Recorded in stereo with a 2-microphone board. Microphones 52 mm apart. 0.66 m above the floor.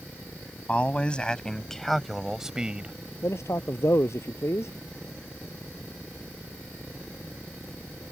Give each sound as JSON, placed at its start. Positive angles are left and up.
{"t": 0.7, "sound": "a man speaking", "side_deg": 25}
{"t": 3.2, "sound": "a man speaking", "side_deg": 60}